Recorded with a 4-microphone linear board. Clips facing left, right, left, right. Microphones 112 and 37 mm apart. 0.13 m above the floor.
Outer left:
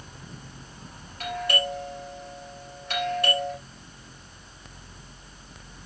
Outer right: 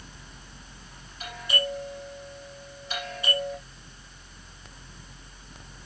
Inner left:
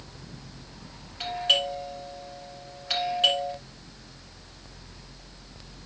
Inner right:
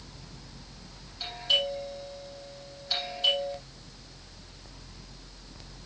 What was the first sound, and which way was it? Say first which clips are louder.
A doorbell: outer left 3 dB, inner left 3 dB; 65° left (ahead or behind).